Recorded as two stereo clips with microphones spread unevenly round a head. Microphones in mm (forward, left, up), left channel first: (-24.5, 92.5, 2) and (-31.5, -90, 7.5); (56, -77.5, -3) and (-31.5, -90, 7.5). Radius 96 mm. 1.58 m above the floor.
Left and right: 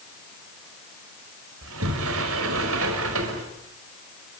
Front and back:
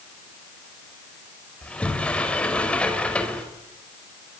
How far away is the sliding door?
About 5 m.